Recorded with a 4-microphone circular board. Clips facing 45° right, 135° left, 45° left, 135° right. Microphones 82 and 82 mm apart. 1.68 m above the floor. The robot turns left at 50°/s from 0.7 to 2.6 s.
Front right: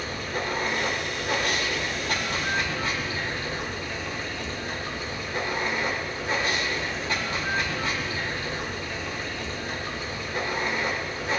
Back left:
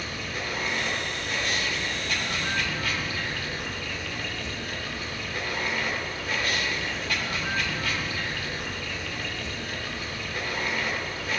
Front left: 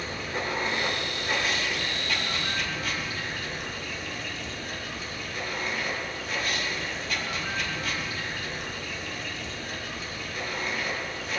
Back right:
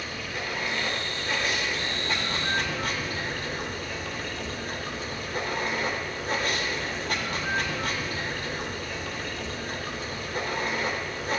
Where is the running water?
10° right, 3 m; by 11.4 s 105° right, 3 m.